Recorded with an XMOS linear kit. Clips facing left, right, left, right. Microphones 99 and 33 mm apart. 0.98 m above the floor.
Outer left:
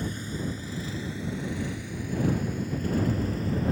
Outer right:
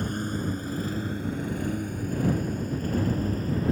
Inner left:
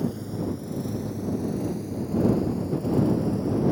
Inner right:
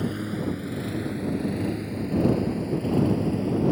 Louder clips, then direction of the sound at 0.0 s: Outer right 3 dB, inner right 1 dB; 55° right (ahead or behind).